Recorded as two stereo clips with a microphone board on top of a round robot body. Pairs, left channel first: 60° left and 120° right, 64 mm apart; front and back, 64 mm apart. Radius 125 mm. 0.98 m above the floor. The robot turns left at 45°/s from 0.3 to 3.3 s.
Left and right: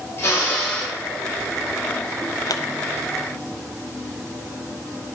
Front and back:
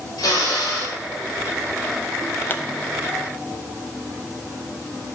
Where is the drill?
Straight ahead, 4.5 m; by 1.0 s 30° right, 4.5 m.